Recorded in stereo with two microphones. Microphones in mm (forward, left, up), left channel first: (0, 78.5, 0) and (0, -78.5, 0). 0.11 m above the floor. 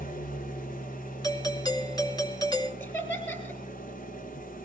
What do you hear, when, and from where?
0.0 s an engine running: 60° left (ahead or behind), 1.8 m
1.2 s a doorbell: 25° left (ahead or behind), 2 m
2.8 s laughter: 15° left (ahead or behind), 3.5 m